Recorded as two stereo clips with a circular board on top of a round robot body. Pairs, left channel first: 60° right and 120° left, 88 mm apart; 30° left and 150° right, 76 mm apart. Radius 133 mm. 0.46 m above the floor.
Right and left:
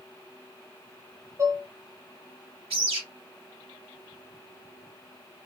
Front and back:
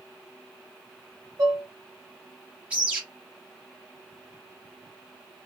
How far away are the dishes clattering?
About 1.5 m.